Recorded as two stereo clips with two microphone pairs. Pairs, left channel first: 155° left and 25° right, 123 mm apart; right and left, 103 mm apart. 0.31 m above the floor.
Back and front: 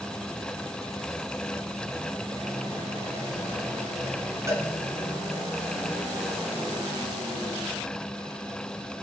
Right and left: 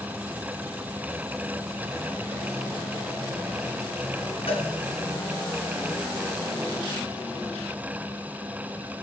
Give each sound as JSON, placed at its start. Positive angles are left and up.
{"t": 4.5, "sound": "a cowbell", "azimuth_deg": -90, "distance_m": 2.0}